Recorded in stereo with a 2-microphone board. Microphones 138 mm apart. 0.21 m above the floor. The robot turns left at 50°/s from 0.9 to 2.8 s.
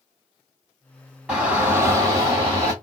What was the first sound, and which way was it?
A shout, 10° right (ahead or behind).